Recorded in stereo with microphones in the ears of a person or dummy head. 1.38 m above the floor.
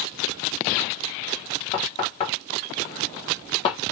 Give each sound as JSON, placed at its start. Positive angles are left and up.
{"t": 1.7, "sound": "knocking", "side_deg": 30, "distance_m": 0.6}